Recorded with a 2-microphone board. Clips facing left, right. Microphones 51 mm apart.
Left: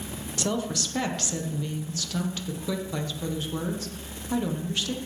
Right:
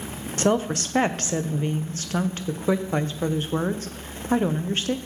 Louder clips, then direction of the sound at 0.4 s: Right 7 dB; 35° right (ahead or behind).